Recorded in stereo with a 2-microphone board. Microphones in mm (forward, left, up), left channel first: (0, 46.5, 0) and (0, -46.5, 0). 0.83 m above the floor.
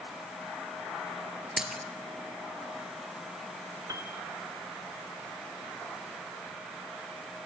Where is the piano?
35° right (ahead or behind), 1.4 m.